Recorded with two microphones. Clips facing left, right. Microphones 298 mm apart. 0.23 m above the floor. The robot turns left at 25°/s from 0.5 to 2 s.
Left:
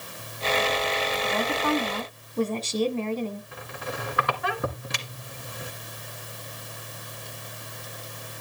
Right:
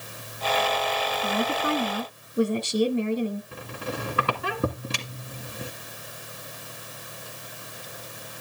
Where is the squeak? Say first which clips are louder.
Right 2 dB; 35° right (ahead or behind), 1.8 m.